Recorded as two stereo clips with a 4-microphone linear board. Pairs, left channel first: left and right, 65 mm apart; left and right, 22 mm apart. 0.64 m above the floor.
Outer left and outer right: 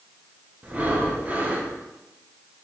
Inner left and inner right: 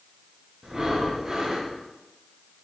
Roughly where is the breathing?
Right.